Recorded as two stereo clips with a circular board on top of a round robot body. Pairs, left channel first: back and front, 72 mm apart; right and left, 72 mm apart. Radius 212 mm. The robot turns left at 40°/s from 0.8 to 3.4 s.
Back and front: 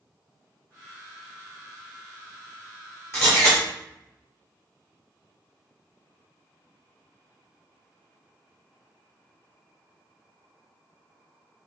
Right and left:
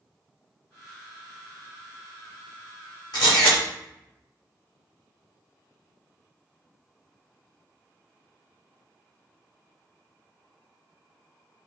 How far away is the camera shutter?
About 0.6 m.